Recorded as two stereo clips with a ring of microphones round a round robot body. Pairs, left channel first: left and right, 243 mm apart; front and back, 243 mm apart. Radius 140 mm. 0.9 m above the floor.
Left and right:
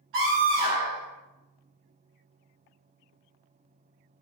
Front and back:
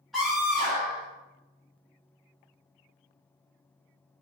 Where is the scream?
90° right, 0.8 m.